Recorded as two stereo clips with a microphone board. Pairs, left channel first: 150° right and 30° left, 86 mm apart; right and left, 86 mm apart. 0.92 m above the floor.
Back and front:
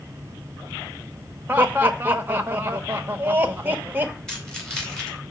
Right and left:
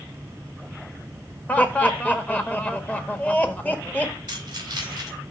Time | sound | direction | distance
1.5 | laughter | 25° right | 0.8 m
4.3 | keys jangling | 125° left | 2.5 m